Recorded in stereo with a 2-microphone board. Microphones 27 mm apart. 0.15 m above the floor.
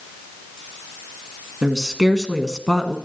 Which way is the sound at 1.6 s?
25° right (ahead or behind).